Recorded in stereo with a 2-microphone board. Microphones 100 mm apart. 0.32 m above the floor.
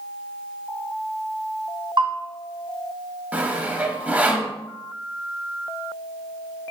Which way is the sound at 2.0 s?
50° right (ahead or behind).